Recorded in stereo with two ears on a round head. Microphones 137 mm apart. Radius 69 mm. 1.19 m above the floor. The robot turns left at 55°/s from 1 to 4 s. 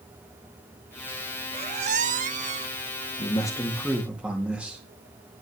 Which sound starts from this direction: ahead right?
A squeak, at 1.5 s.